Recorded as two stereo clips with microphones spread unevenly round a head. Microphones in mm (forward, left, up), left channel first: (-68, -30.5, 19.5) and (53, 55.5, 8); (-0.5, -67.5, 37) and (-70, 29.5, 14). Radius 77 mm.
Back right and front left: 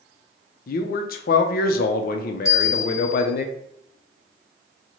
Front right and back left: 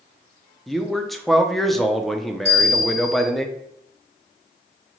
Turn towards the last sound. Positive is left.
turn(degrees=145)